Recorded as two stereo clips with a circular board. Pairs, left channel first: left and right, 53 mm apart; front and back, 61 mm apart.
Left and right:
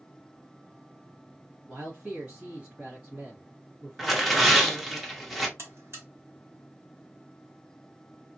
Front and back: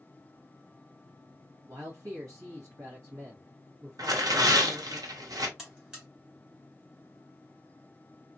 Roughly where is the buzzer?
Right.